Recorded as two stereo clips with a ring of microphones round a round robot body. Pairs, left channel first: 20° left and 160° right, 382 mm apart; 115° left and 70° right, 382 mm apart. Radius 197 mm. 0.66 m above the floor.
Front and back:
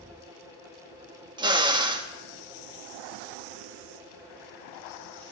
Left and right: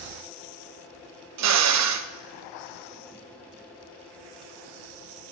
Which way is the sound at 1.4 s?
85° right.